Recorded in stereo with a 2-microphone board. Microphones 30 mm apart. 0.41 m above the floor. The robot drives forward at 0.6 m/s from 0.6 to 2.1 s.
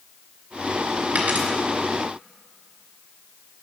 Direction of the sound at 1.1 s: 65° right (ahead or behind).